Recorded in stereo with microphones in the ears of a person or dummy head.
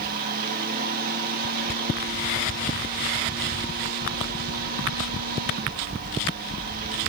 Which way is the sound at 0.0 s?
60° right (ahead or behind).